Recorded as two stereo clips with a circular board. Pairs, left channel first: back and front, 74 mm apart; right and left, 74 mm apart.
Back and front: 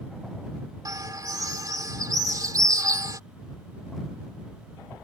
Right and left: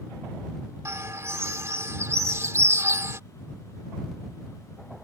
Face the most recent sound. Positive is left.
turn(degrees=40)